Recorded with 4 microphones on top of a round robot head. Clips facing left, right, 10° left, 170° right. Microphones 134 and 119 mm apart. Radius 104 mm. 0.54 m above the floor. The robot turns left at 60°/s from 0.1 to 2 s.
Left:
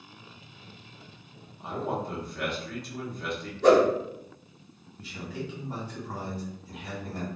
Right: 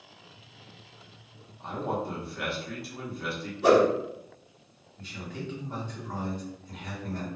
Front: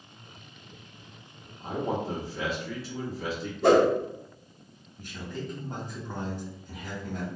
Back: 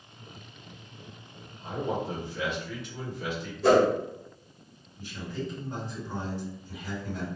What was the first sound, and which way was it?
A man speaking, 15° left.